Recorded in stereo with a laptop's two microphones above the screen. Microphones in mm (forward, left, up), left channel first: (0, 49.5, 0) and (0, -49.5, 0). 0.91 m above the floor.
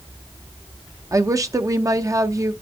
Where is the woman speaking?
30° right (ahead or behind), 0.7 m.